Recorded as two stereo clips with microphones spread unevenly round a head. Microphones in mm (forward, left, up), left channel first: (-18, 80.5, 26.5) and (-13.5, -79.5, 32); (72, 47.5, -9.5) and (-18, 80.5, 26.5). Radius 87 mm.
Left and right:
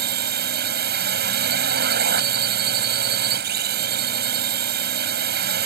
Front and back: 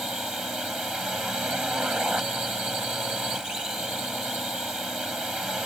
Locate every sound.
0.0 s a drone: 115° right